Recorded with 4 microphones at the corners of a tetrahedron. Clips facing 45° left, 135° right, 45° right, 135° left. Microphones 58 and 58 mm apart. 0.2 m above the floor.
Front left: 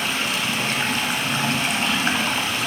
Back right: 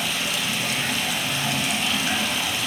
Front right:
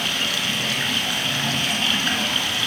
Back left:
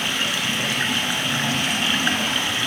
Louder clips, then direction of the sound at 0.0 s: Front left 3 dB, back left 1 dB; 75° left.